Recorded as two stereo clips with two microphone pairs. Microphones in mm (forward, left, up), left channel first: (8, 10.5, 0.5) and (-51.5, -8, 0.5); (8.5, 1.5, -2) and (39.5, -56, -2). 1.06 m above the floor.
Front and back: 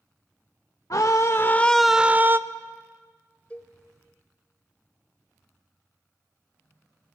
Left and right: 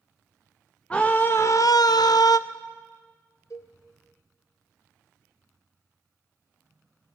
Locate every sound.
0.9 s a scream: 45° left, 0.9 m; by 2.4 s 145° left, 0.8 m
3.5 s a cowbell: 85° left, 1.4 m